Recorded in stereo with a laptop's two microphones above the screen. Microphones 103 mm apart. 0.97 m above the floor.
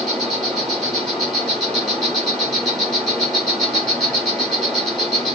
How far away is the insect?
About 1.8 m.